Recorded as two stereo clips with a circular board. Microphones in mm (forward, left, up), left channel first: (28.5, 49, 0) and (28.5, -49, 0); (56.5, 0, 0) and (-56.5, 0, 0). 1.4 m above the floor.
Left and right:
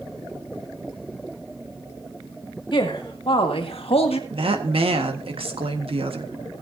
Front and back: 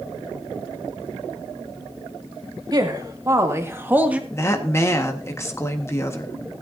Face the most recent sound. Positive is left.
turn(degrees=-65)